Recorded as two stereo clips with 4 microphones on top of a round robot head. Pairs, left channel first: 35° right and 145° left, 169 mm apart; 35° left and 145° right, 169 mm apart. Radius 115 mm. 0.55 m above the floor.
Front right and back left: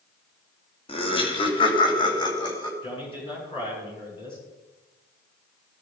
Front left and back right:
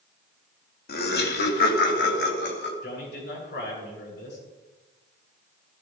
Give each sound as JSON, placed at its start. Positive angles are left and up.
{"t": 0.9, "sound": "laughter", "azimuth_deg": 20, "distance_m": 3.0}
{"t": 2.8, "sound": "a man speaking", "azimuth_deg": 25, "distance_m": 9.0}